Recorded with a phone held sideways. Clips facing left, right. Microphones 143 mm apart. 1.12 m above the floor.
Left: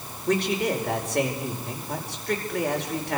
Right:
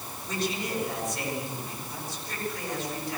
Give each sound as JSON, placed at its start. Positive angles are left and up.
{"t": 0.3, "sound": "a man speaking", "side_deg": 70, "distance_m": 5.0}